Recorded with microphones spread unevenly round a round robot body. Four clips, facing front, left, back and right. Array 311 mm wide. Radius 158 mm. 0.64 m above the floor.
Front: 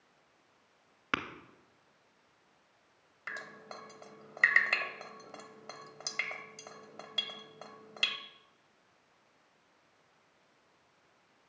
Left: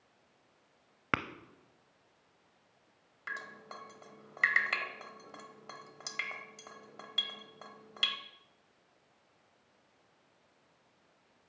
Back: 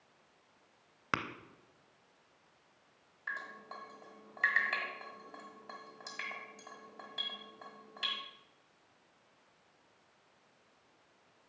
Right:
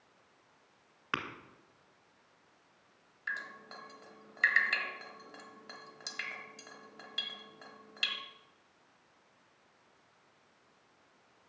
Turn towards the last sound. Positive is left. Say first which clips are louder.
# right 2 dB, back 1 dB
turn(degrees=30)